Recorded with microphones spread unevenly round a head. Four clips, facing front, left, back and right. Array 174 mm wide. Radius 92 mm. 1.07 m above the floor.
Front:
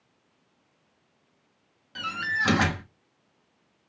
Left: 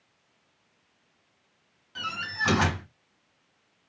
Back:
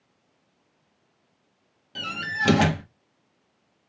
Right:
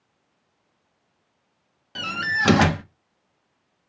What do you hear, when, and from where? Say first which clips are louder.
1.9 s a door slam: right 7 dB, front 1 dB; 125° right, 1.0 m